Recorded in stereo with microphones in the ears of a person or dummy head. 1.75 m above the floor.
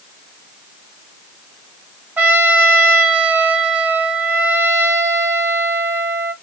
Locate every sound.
2.2 s a trumpet: 10° right (ahead or behind), 1.2 m